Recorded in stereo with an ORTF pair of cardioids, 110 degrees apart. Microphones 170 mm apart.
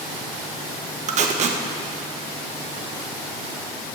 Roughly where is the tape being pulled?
Ahead right.